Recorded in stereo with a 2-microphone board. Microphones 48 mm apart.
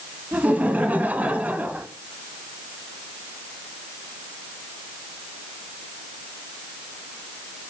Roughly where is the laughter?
Right.